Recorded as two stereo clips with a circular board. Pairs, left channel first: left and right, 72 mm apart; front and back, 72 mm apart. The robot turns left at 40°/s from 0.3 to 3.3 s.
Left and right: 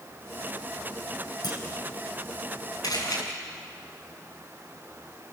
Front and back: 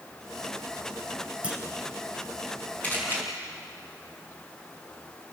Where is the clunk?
110° left, 3.5 m; by 1.6 s 100° left, 3.5 m.